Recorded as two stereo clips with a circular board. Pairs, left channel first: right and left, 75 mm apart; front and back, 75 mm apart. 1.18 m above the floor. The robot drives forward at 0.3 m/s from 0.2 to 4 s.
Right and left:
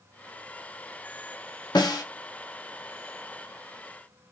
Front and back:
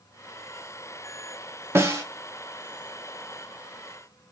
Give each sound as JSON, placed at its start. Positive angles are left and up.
{"t": 1.8, "sound": "a snare drum", "azimuth_deg": -120, "distance_m": 0.7}